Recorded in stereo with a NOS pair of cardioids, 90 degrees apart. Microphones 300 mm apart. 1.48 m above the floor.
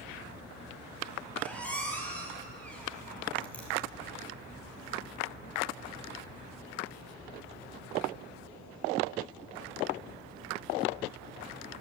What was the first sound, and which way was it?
A squeak, 5° left.